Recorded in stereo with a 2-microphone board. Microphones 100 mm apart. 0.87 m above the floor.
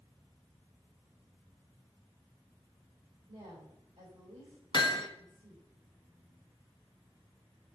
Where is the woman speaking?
75° right (ahead or behind), 4 m.